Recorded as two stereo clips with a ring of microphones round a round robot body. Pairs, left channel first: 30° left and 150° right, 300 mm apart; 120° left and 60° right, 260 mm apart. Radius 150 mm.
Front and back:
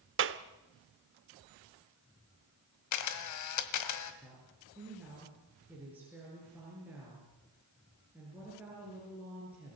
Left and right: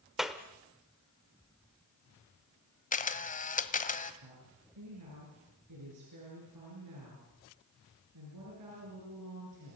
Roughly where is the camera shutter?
Ahead left.